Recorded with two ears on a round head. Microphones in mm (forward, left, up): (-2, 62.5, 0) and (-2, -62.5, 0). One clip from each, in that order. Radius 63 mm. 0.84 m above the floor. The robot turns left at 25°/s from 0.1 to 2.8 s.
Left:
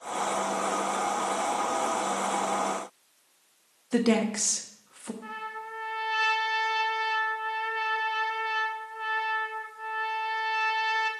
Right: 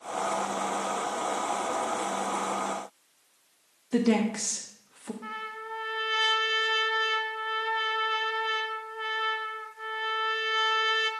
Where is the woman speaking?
20° left (ahead or behind), 1.1 m.